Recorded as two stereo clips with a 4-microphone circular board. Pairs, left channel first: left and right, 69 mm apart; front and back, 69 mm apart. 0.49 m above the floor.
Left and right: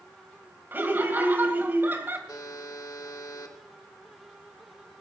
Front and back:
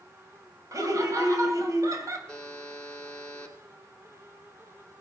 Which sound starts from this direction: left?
A buzzer, at 2.3 s.